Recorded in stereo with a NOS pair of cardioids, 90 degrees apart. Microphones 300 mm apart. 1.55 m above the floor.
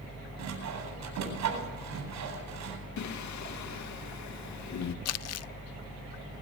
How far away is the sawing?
About 9 m.